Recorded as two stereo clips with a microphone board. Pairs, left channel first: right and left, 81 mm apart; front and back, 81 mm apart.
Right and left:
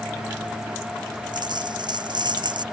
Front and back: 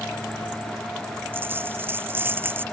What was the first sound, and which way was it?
A dropped coin, 115° left.